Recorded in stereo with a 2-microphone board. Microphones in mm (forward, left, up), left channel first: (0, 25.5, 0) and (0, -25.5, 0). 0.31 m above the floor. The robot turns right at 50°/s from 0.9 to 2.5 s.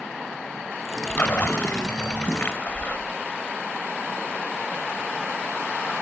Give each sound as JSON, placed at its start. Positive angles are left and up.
{"t": 1.1, "sound": "a splash", "azimuth_deg": 55, "distance_m": 1.2}